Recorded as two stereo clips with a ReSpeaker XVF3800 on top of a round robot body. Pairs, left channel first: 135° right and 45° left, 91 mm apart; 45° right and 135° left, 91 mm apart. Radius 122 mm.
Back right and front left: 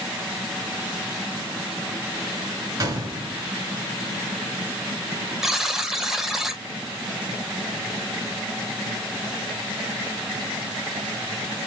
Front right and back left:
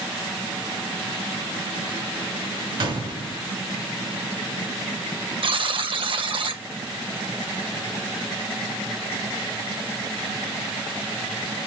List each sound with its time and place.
2.8 s a gunshot: 100° left, 2 m
5.4 s a buzzer: 130° left, 1.6 m